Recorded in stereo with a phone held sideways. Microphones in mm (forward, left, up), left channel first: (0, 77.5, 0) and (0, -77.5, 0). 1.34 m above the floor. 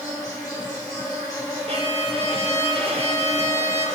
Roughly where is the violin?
Right.